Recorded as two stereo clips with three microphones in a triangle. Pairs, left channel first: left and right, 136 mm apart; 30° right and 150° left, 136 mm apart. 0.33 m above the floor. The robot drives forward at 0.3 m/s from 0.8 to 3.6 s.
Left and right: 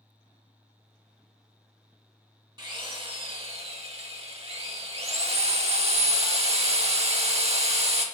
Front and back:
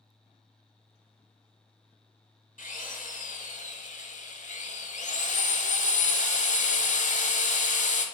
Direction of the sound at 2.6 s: 35° right.